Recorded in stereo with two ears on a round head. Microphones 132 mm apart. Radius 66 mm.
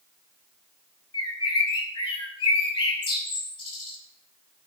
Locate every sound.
1.1 s a bird: 35° left (ahead or behind), 2 m